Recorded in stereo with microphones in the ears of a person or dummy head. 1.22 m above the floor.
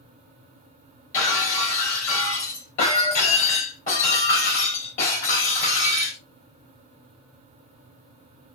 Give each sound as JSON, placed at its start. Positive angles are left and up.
{"t": 1.1, "sound": "breaking glass", "side_deg": 40, "distance_m": 3.5}